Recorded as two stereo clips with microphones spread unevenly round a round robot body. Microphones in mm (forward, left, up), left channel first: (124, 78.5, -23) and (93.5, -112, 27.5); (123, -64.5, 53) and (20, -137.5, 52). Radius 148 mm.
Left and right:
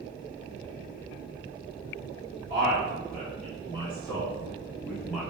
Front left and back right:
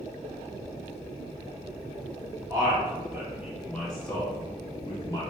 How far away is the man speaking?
About 1.3 m.